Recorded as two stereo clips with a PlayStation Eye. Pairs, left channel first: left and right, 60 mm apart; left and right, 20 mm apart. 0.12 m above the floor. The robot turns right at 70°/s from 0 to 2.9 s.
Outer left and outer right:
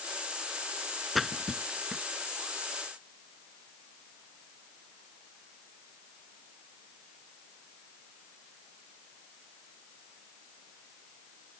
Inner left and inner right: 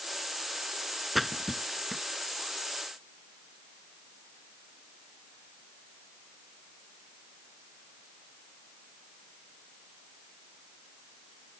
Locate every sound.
1.1 s a splash: centre (ahead or behind); by 2.0 s 20° right (ahead or behind)